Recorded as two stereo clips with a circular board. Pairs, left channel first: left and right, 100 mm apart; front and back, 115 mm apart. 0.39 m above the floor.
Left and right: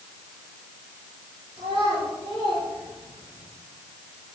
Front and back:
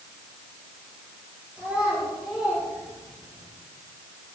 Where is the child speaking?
95° right, 5 m.